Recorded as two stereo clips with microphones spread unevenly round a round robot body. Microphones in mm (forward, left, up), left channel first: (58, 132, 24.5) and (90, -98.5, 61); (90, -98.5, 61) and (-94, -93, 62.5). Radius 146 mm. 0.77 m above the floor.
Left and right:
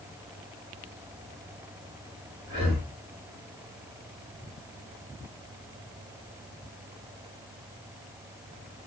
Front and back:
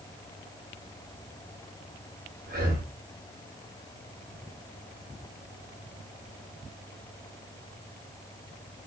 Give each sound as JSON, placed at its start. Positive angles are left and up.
{"t": 2.5, "sound": "breathing", "azimuth_deg": -155, "distance_m": 4.5}